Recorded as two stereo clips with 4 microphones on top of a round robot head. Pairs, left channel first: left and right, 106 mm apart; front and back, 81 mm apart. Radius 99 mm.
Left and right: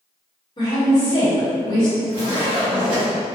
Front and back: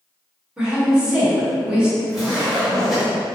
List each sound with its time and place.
0.6 s a woman speaking: 105° left, 1.8 m
2.1 s a zipper: 90° left, 1.9 m